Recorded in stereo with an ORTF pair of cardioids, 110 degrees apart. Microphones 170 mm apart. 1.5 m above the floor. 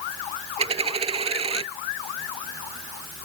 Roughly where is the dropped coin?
Ahead right.